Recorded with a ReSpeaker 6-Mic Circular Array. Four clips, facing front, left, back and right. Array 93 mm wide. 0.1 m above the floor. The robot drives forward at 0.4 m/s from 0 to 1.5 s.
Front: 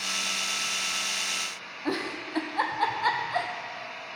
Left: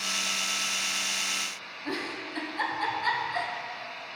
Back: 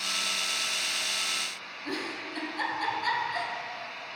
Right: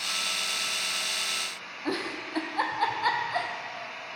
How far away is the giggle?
About 1.2 m.